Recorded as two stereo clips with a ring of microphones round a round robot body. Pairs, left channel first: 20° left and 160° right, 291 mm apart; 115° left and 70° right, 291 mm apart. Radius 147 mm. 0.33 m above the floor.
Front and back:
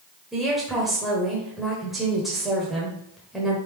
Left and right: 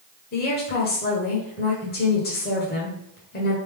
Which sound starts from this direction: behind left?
A woman speaking, at 0.3 s.